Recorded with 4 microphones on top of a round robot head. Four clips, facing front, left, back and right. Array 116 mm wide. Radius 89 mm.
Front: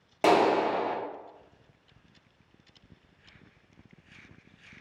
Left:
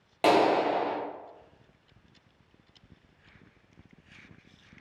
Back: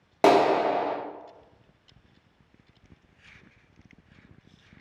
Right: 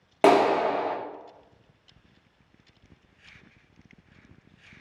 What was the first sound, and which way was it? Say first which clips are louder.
A clap: right 3 dB, back 3 dB; 130° right.